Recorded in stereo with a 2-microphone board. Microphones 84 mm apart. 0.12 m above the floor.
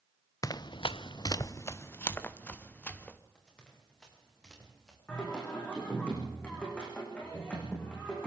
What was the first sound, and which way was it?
Running footsteps, 45° left (ahead or behind).